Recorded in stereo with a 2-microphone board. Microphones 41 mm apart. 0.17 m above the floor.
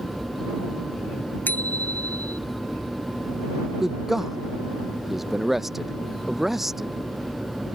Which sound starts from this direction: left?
A bicycle bell, at 1.5 s.